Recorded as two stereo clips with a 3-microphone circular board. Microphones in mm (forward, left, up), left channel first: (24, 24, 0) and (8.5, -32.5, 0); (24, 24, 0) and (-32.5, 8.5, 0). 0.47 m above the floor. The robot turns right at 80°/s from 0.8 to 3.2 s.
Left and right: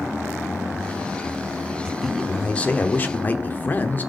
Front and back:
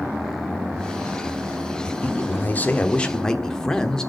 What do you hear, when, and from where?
1.9 s a man speaking: 25° right, 1.0 m; by 4.1 s 80° left, 1.0 m